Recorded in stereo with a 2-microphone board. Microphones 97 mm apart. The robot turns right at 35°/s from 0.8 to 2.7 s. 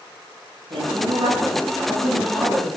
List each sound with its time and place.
0.7 s a woman speaking: 65° right, 5.5 m; by 2.7 s straight ahead, 5.5 m